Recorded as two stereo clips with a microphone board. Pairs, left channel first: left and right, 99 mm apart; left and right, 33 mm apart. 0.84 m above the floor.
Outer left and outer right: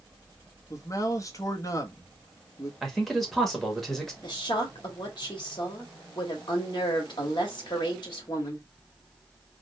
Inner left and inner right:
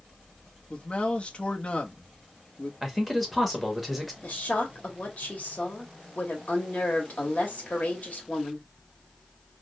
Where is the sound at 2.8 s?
Centre (ahead or behind), 1.3 m.